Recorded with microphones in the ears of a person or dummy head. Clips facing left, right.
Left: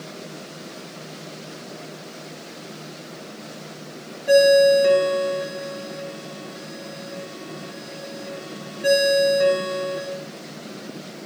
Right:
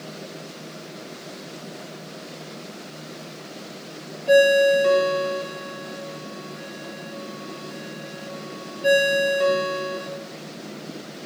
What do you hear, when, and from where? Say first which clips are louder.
4.3 s a ringtone: left 2 dB; 15° left (ahead or behind), 0.7 m